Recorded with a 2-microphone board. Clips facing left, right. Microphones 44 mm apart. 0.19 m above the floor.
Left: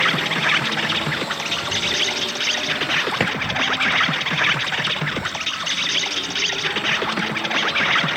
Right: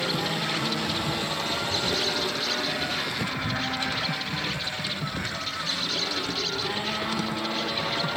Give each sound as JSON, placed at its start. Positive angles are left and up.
{"t": 0.0, "sound": "an insect", "side_deg": 60}
{"t": 3.2, "sound": "a drawer", "side_deg": 70}